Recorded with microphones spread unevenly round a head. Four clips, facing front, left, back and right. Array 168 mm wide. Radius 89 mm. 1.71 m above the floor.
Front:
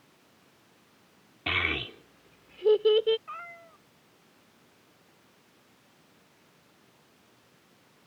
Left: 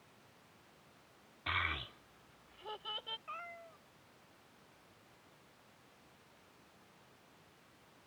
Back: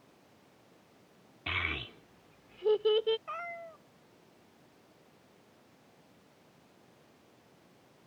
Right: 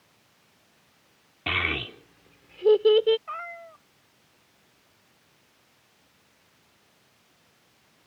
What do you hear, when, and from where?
1.5 s a child speaking: 65° right; by 3.2 s 85° right
3.3 s a cat meowing: 155° right